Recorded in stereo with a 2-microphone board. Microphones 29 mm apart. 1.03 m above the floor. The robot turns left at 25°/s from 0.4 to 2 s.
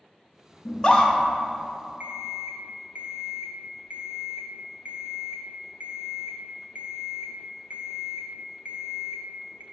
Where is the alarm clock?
60° right (ahead or behind), 0.6 m.